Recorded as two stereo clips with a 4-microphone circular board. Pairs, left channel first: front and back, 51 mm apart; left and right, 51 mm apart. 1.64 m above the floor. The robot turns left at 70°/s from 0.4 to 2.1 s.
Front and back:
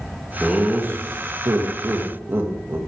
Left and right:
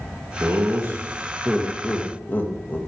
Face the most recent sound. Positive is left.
turn(degrees=140)